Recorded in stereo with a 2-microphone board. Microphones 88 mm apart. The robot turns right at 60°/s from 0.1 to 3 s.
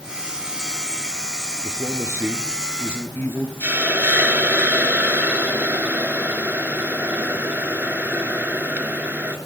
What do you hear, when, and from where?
1.6 s a man speaking: 60° right, 4.5 m; by 3.5 s 25° left, 4.5 m
3.6 s a hiss: 15° right (ahead or behind), 3 m